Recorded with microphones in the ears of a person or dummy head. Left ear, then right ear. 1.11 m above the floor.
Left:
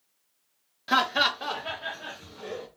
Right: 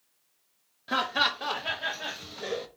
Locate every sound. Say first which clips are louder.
0.9 s laughter: left 3 dB; 20° left (ahead or behind), 0.6 m; by 2.7 s 45° right (ahead or behind), 1.1 m